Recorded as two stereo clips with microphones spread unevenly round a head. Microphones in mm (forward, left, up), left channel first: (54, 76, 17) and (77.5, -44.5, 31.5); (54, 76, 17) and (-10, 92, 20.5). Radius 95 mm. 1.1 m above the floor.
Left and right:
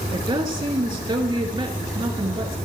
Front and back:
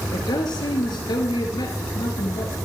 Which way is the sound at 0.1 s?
30° right.